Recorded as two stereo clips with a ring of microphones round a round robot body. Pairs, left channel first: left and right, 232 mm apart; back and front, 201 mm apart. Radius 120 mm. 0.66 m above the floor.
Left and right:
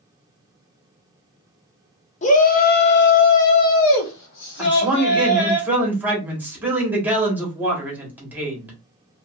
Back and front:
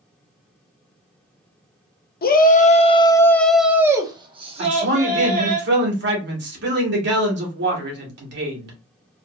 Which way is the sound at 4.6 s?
10° right.